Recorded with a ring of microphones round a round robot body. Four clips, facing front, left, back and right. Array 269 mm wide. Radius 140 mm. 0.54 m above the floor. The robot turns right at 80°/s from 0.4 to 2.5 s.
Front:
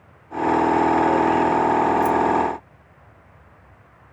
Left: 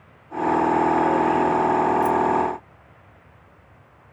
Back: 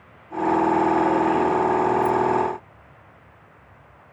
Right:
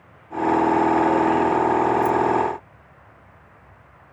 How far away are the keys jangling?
About 0.8 m.